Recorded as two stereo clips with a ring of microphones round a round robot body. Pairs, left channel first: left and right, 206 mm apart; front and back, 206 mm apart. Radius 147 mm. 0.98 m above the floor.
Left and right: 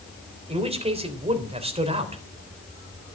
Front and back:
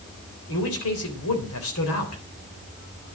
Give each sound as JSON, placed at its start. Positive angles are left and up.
{"t": 0.5, "sound": "a man speaking", "azimuth_deg": -30, "distance_m": 3.5}